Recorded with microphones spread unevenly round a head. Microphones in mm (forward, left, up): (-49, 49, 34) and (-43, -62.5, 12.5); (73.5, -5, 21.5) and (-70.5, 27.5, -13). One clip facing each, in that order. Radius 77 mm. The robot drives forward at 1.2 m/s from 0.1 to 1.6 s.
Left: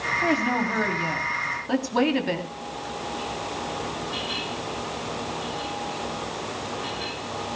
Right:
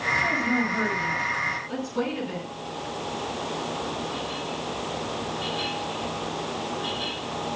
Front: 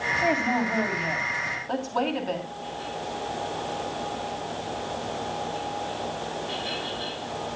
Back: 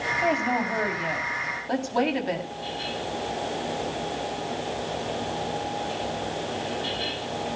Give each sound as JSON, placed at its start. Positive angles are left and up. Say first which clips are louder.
{"t": 0.2, "sound": "a woman speaking", "louder": "left 4 dB, even", "azimuth_deg": 70, "distance_m": 4.0}